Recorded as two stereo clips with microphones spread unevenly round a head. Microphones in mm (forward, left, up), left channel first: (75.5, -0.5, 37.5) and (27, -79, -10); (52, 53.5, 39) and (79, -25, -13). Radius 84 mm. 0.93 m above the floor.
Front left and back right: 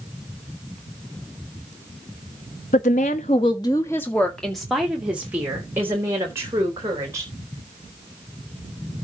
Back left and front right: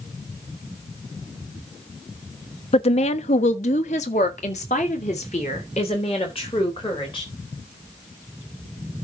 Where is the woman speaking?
90° left, 1.2 m; by 7.3 s 175° left, 4.5 m.